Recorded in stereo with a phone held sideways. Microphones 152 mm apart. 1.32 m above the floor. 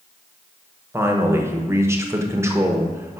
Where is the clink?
No clink in this recording.